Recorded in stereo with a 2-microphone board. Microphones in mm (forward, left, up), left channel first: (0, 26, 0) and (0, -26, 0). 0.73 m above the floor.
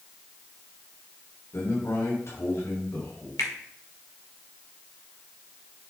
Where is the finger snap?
80° left, 1.5 m.